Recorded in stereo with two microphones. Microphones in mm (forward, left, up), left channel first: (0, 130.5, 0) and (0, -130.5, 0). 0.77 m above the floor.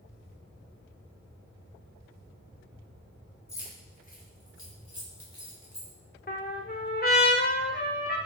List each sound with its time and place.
3.5 s keys jangling: 10° left (ahead or behind), 0.9 m; by 5.9 s 75° left (ahead or behind), 1.3 m
6.3 s a trumpet: 35° left (ahead or behind), 0.6 m